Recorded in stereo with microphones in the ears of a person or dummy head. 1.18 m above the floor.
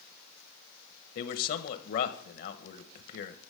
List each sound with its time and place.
1.1 s a man speaking: 50° left (ahead or behind), 1.1 m